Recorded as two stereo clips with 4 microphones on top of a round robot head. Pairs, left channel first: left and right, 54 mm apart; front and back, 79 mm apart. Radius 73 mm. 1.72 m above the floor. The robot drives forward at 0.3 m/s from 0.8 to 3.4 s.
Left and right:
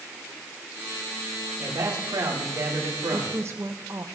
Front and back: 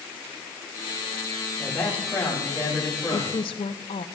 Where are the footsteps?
No footsteps in this recording.